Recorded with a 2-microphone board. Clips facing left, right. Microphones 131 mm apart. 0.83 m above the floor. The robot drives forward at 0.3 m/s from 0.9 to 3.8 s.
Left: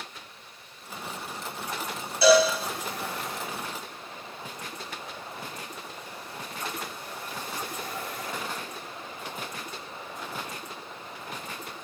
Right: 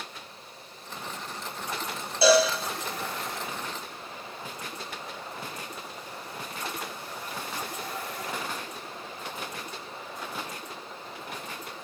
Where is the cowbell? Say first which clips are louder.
Left 2 dB; 25° right (ahead or behind), 0.8 m.